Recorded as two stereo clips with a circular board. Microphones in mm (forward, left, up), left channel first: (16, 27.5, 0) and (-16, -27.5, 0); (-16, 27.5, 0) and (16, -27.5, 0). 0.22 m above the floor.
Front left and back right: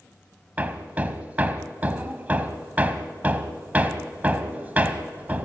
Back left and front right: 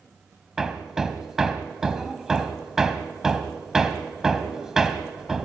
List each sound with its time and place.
0.6 s hammering: 135° right, 1.3 m